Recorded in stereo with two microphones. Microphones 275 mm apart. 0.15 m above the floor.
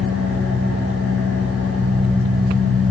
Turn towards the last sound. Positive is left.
turn(degrees=-45)  # may be behind; listen again after turning